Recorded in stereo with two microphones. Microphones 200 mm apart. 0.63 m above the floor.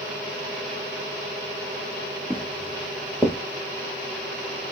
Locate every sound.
2.3 s footsteps: 15° right (ahead or behind), 1.7 m; by 3.4 s 5° left (ahead or behind), 1.3 m